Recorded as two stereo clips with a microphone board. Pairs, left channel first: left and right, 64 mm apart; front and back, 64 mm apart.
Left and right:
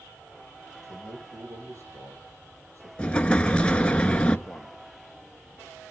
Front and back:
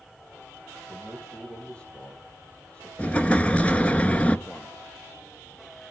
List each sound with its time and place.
0.8 s a man speaking: 75° right, 3.5 m
3.0 s an explosion: 40° left, 0.7 m
4.5 s a man speaking: 10° right, 1.1 m